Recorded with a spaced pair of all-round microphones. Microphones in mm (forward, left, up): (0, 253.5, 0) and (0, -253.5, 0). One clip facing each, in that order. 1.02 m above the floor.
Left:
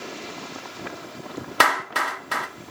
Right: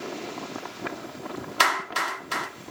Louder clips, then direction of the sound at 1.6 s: Left 9 dB; 70° left (ahead or behind).